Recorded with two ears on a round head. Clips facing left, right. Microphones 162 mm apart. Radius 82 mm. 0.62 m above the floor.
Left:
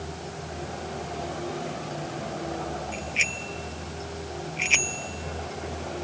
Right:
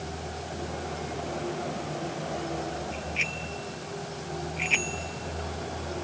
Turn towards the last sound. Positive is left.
turn(degrees=50)  # may be behind; listen again after turning